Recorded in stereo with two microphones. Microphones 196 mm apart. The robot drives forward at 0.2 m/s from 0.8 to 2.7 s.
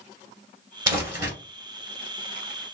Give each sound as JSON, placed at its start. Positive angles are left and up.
{"t": 0.9, "sound": "crumpling", "side_deg": -20, "distance_m": 1.8}